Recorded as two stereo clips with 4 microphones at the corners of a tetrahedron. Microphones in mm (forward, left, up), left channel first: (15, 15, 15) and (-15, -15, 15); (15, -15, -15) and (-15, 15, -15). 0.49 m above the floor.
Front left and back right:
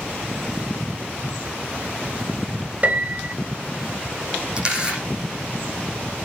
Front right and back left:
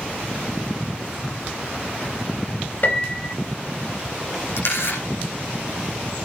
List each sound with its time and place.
2.8 s a piano: 80° right, 3 m
4.6 s a camera shutter: 65° right, 10 m